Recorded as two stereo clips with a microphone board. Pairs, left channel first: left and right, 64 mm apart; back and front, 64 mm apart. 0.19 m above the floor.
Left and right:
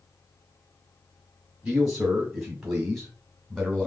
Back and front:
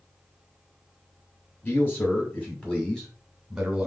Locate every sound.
1.6 s a man speaking: 165° right, 1.6 m; by 3.9 s 35° left, 1.4 m